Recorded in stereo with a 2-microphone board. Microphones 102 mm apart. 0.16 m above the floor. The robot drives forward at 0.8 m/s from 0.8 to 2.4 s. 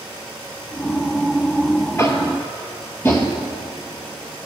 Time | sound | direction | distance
2.0 | tapping | 25° left (ahead or behind) | 1.4 m